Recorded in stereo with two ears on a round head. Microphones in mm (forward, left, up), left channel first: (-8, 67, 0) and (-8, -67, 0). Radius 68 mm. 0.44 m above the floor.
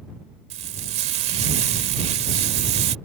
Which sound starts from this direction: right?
Frying, at 0.5 s.